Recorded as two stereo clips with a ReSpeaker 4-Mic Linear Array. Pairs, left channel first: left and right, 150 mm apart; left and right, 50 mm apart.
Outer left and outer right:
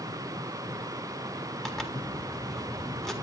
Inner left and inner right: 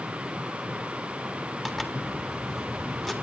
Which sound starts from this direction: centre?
A zipper, at 1.6 s.